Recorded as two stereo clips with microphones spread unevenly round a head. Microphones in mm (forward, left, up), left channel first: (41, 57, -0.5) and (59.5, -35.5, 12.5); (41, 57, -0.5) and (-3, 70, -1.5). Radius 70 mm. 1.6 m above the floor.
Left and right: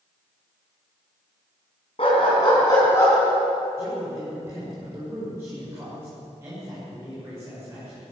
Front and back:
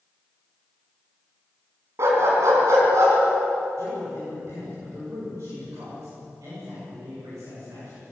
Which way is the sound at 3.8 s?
150° right.